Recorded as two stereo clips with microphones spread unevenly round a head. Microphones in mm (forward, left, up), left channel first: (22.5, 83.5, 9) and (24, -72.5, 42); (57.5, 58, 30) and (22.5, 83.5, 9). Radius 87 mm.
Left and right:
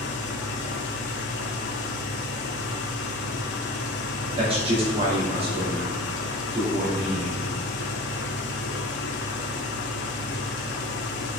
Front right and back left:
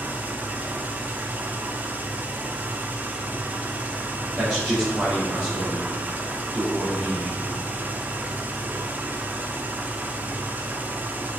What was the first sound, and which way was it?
An engine running, 90° left.